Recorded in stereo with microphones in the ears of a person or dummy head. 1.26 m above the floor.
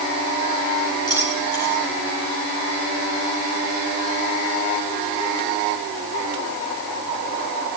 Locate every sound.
1.1 s keys jangling: 25° left (ahead or behind), 10 m